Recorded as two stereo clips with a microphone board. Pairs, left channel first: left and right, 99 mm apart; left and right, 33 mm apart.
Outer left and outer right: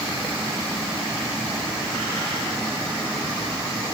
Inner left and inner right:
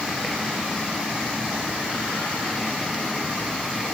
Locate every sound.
Only background noise.